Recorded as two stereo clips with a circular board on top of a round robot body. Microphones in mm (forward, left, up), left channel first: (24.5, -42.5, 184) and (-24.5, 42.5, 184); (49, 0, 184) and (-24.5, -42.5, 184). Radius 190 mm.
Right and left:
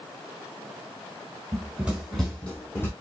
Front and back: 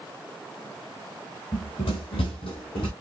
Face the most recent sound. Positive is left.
turn(degrees=10)